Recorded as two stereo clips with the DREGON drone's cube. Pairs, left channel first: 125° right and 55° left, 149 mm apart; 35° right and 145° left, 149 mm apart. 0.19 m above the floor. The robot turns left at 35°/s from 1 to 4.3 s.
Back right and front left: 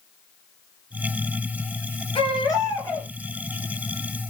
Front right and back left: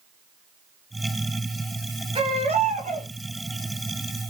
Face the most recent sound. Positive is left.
turn(degrees=110)